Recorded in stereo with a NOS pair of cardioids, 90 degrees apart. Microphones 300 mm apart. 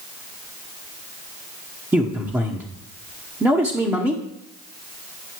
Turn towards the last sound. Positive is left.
turn(degrees=-10)